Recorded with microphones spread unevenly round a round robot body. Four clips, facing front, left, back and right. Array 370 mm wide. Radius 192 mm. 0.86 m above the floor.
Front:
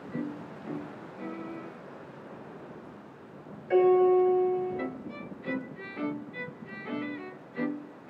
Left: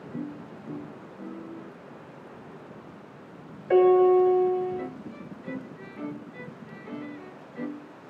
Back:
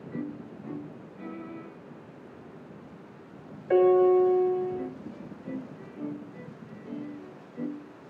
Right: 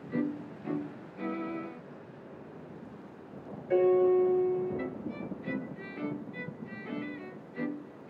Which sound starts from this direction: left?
A piano, at 3.7 s.